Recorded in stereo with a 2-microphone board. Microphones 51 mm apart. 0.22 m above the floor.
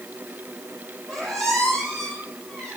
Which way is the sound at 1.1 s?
10° left (ahead or behind).